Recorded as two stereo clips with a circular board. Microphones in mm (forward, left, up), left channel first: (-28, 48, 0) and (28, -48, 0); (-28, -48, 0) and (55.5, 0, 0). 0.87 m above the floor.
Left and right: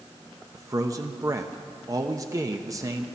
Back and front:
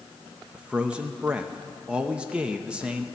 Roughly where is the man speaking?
Ahead right.